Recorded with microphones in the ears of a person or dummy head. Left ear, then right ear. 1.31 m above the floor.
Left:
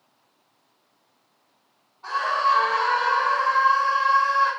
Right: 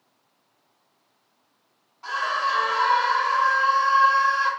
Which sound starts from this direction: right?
A scream, at 2.0 s.